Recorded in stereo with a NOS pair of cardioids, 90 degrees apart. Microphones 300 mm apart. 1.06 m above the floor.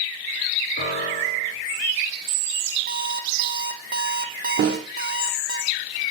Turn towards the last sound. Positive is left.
turn(degrees=-50)